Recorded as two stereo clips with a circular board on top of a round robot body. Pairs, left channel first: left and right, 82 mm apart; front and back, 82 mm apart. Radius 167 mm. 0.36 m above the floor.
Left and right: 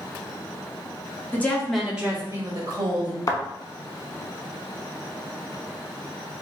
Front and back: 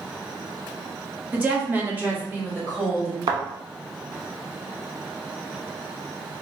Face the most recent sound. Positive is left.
turn(degrees=140)